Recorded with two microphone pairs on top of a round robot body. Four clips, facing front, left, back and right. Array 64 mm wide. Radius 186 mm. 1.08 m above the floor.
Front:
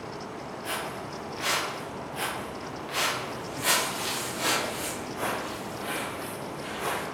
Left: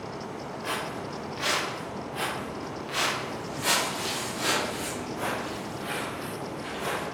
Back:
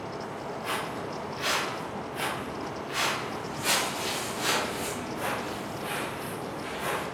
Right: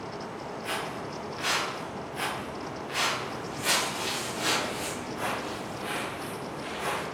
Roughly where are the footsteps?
Left.